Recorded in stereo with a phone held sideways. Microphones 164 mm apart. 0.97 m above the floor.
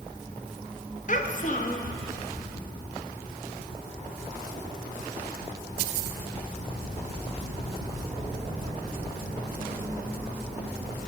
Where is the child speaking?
55° left (ahead or behind), 1.0 m.